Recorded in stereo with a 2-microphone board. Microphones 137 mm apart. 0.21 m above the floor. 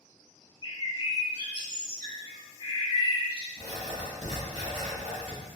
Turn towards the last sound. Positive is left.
turn(degrees=-45)  # may be behind; listen again after turning